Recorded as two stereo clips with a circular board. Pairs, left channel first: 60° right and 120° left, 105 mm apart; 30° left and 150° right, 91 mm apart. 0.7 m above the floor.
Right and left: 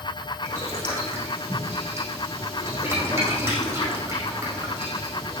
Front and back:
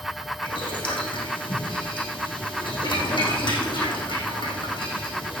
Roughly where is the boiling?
Ahead left.